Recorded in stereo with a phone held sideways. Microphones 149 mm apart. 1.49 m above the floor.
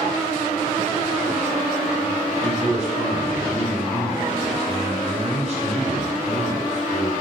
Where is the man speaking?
50° right (ahead or behind), 6 m.